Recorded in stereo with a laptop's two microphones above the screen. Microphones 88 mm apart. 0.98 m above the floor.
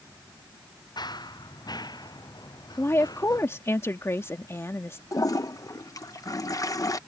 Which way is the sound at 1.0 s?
55° left (ahead or behind).